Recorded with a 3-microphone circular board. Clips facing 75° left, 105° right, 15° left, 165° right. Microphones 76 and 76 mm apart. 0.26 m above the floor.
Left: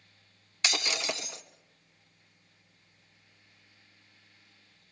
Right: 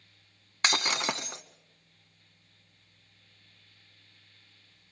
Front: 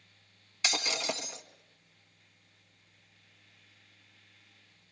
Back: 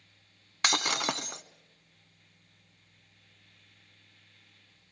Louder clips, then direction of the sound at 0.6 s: Right 4 dB, back 4 dB; 145° right.